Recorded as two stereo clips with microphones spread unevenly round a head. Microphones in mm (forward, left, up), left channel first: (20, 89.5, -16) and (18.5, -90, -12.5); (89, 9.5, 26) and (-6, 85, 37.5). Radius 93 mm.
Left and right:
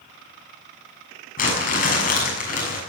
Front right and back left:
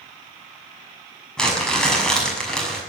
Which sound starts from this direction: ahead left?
Crumpling, at 1.4 s.